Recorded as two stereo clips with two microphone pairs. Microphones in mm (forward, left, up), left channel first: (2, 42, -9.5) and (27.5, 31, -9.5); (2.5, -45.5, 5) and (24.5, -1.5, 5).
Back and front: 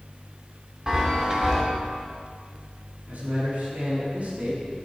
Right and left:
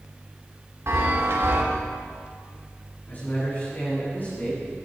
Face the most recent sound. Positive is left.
turn(degrees=-55)